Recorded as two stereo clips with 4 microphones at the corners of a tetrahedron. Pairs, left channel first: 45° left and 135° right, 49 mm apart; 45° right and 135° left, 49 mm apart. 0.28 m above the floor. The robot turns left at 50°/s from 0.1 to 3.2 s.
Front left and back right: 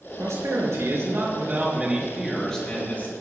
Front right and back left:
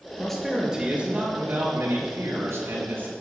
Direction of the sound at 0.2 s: 125° right.